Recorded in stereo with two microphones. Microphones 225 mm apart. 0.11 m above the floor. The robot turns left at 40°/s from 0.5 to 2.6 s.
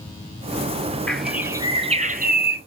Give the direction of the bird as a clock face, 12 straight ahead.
12 o'clock.